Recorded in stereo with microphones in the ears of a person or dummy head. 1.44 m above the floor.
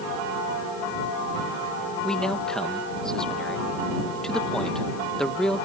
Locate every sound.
2.0 s a man speaking: centre (ahead or behind)